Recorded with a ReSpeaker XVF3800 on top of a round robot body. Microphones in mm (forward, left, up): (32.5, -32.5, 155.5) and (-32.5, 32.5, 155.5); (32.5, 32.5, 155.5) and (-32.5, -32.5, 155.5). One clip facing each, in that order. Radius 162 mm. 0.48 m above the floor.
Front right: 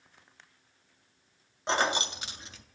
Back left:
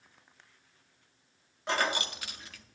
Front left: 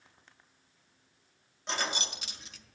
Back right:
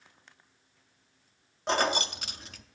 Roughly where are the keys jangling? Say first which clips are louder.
Front right 2 dB, back right 8 dB; right.